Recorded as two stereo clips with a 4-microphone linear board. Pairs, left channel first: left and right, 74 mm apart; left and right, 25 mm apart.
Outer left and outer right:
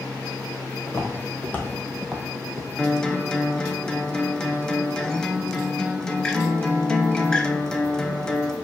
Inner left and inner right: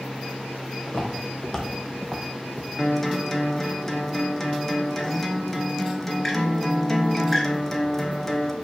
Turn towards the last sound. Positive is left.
turn(degrees=10)  # may be behind; listen again after turning